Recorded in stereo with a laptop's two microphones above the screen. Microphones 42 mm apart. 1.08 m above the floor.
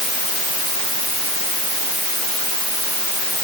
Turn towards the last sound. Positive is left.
No sound to turn to.